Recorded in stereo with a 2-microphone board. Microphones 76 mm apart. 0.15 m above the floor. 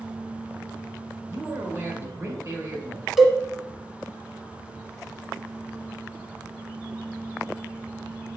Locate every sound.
1.3 s a man speaking: 40° right (ahead or behind), 2 m
3.2 s a cowbell: 5° right (ahead or behind), 1.1 m